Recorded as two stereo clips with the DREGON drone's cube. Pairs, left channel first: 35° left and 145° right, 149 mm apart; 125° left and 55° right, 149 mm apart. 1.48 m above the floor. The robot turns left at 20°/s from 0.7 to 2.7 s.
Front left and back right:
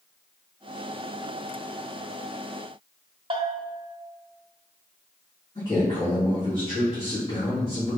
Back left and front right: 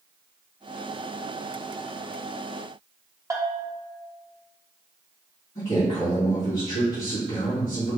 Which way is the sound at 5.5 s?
100° left.